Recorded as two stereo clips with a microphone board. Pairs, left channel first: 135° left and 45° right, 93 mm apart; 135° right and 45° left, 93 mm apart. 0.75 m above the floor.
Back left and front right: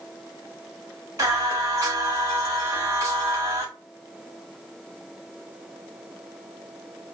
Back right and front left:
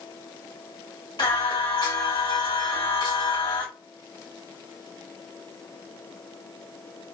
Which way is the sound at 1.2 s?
100° right.